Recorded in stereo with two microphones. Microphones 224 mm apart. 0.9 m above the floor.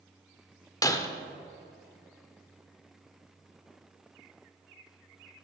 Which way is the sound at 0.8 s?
15° left (ahead or behind).